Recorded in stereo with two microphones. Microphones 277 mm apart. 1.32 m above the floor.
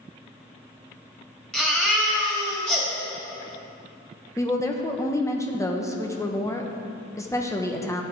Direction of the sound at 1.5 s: 5° left (ahead or behind).